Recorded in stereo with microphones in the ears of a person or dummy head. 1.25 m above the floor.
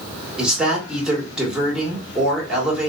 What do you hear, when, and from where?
0.4 s a woman speaking: 5° right (ahead or behind), 1.5 m